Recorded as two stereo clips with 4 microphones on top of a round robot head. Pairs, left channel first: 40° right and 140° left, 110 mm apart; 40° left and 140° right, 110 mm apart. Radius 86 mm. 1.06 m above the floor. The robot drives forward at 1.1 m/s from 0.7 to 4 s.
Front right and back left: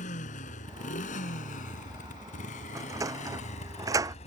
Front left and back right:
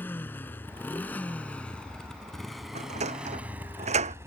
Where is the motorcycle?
35° right; by 4.3 s 70° right.